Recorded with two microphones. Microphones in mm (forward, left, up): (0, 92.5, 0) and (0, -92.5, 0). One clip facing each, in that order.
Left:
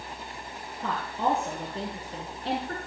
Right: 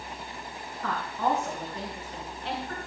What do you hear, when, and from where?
0.8 s a woman speaking: 25° left (ahead or behind), 3.5 m; by 2.8 s 45° left (ahead or behind), 2.5 m